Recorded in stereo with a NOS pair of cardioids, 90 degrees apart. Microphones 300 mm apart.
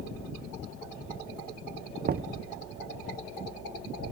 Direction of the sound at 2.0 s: 30° right.